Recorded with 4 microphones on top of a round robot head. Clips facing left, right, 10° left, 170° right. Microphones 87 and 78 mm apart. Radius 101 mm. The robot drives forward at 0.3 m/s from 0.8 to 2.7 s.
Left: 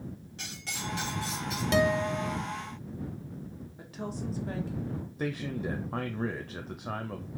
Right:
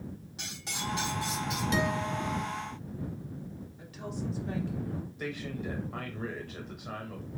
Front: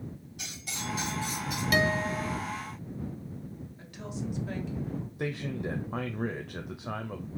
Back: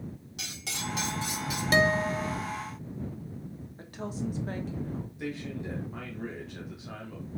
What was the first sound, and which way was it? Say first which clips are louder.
Cutlery clinking: right 1 dB, back 2 dB; 170° right.